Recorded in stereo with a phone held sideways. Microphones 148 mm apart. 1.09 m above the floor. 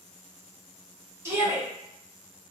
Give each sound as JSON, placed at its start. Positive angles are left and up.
{"t": 1.2, "sound": "a shout", "side_deg": -20, "distance_m": 0.9}